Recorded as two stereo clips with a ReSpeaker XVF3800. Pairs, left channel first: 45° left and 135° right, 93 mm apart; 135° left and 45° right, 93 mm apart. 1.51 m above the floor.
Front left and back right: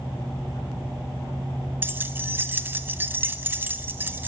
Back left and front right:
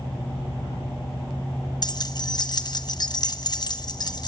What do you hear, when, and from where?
1.8 s keys jangling: 160° left, 1.1 m